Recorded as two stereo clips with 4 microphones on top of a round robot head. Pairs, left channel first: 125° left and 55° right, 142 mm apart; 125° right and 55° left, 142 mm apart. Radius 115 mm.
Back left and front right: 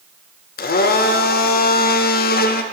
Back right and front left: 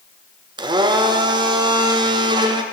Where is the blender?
115° left, 0.7 m.